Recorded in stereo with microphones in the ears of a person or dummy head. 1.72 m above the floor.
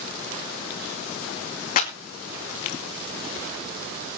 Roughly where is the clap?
Left.